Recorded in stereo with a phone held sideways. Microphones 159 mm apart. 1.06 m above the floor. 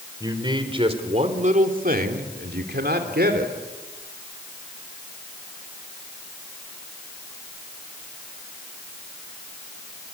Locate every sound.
0.2 s a man speaking: 25° right (ahead or behind), 3.5 m; by 3.5 s 70° right (ahead or behind), 3 m